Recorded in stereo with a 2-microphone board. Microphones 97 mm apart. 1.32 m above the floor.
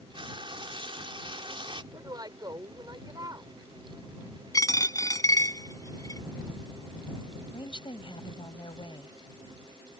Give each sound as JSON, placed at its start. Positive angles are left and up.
{"t": 0.1, "sound": "frying", "side_deg": -60}
{"t": 1.9, "sound": "a woman speaking", "side_deg": -40}
{"t": 4.5, "sound": "a dropped coin", "side_deg": 40}
{"t": 7.5, "sound": "a woman speaking", "side_deg": 60}